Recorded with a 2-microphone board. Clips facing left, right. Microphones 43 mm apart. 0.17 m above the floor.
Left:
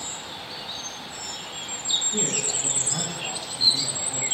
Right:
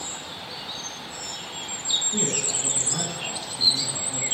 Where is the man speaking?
5° right (ahead or behind), 1.1 m.